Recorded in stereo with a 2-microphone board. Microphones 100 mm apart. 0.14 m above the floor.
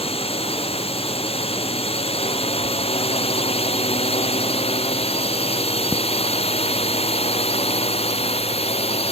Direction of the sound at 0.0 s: 75° left (ahead or behind).